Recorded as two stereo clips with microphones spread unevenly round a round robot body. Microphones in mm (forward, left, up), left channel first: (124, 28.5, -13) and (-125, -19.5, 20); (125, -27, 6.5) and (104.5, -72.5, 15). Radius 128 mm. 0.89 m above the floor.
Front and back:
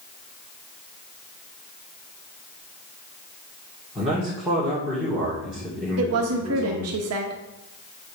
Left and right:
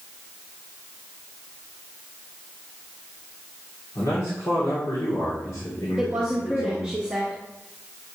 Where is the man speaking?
100° left, 2.5 m.